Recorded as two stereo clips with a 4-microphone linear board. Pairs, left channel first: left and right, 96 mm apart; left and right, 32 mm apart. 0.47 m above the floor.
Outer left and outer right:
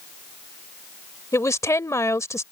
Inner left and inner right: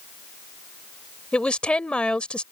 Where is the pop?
No pop in this recording.